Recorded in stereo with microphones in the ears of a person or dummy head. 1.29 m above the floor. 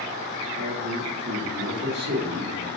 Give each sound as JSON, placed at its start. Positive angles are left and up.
{"t": 0.6, "sound": "a man speaking", "side_deg": -70, "distance_m": 1.4}